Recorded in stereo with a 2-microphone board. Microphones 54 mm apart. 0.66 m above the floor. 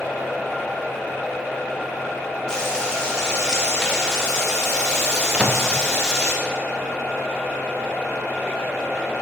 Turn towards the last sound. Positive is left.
turn(degrees=-20)  # may be behind; listen again after turning